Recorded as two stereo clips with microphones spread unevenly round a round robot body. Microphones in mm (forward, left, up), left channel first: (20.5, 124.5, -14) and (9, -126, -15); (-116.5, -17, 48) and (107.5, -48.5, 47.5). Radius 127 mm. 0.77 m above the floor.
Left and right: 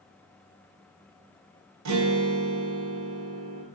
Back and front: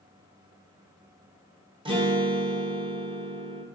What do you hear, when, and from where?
1.9 s a guitar: 75° right, 0.7 m